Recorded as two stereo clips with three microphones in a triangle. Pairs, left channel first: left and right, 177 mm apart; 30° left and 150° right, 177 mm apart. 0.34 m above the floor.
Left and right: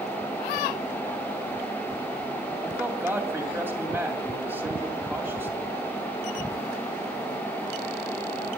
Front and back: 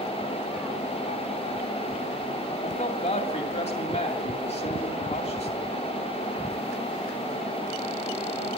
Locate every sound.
2.6 s a man speaking: 15° right, 2 m